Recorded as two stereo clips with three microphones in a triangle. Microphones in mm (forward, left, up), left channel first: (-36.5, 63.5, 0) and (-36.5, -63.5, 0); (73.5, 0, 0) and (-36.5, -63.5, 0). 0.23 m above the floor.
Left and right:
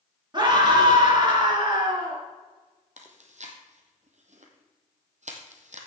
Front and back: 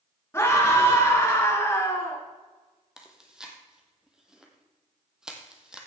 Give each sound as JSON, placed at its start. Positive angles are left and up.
{"t": 0.3, "sound": "a scream", "azimuth_deg": -40, "distance_m": 3.0}
{"t": 3.0, "sound": "chewing", "azimuth_deg": -65, "distance_m": 1.7}